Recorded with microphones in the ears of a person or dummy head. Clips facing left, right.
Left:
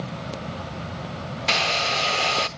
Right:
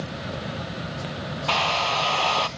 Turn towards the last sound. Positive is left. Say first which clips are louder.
# right 1 dB
turn(degrees=20)  # may be behind; listen again after turning